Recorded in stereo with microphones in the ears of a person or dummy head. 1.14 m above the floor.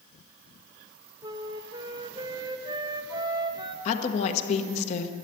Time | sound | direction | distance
1.2 | a flute | 25° right (ahead or behind) | 0.6 m
3.9 | a woman speaking | 35° left (ahead or behind) | 1.2 m